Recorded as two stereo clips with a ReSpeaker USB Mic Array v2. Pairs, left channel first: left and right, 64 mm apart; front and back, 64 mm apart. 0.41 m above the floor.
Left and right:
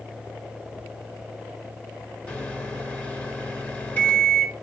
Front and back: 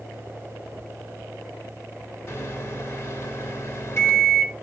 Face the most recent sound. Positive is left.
turn(degrees=30)